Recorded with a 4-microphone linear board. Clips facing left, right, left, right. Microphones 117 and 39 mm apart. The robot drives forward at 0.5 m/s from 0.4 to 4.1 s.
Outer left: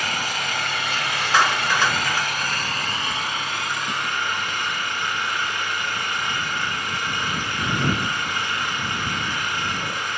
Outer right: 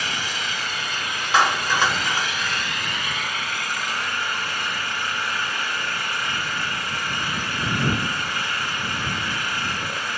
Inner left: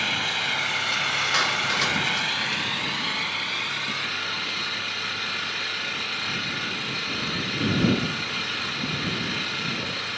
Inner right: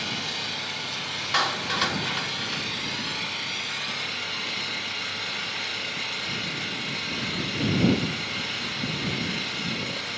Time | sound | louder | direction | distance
0.0 | an engine running | outer left 2 dB, inner left 6 dB | 55° left (ahead or behind) | 0.8 m
1.3 | a clap | outer right 1 dB, inner right 2 dB | 15° right (ahead or behind) | 1.4 m